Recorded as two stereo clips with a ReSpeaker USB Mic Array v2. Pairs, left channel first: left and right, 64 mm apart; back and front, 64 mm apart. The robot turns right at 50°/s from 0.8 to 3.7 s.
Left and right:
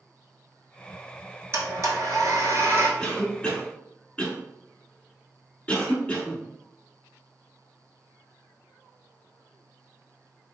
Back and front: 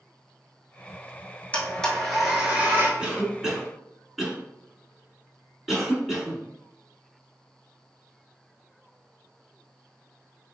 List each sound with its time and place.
1.5 s a blender: 120° right, 0.8 m; by 2.9 s 50° right, 0.8 m
3.0 s a cough: 35° left, 1.0 m; by 6.4 s 70° left, 1.0 m